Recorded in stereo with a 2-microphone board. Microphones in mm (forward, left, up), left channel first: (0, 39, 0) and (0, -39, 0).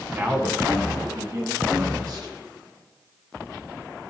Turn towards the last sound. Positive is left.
turn(degrees=-60)  # may be behind; listen again after turning